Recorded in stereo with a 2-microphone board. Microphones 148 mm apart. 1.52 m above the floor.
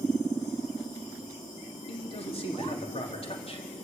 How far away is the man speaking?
About 4 m.